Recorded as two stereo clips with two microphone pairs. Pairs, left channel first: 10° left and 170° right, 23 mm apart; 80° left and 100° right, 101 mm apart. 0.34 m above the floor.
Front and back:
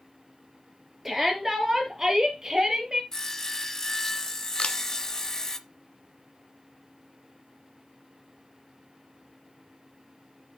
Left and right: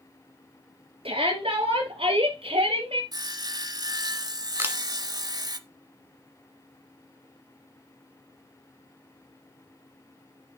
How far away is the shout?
About 5.5 m.